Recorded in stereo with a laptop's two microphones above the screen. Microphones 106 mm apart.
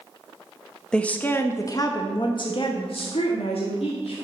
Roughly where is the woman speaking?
Centre.